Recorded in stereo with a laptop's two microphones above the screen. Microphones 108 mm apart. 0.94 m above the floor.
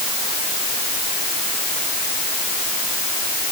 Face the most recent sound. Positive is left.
No sound to turn to.